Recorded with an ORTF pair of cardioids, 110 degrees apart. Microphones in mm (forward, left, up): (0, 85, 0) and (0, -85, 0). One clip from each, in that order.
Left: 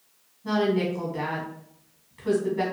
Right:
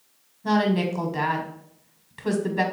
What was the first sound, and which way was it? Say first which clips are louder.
A woman speaking: right 1 dB; 50° right.